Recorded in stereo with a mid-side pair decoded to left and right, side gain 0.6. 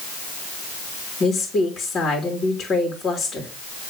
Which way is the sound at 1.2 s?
35° left.